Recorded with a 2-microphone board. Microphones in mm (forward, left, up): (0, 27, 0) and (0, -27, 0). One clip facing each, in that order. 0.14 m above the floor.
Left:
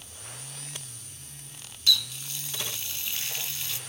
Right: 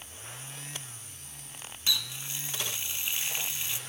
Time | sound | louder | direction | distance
1.9 | a running tap | left 5 dB | 20° right (ahead or behind) | 0.8 m